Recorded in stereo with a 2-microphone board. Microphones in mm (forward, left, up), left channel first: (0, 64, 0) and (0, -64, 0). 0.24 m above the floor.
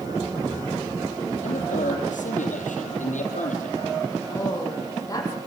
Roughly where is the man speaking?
Left.